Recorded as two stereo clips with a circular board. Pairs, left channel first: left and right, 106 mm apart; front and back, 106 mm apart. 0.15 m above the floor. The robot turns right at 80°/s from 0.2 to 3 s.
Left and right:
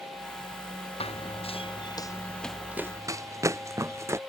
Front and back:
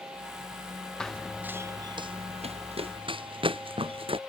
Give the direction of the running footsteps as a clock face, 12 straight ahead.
9 o'clock.